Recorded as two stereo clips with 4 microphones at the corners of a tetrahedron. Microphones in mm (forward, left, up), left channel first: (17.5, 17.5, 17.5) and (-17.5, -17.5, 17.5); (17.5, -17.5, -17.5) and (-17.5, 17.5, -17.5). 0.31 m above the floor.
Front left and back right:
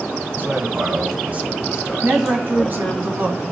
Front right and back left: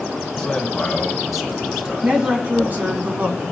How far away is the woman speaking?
About 2 m.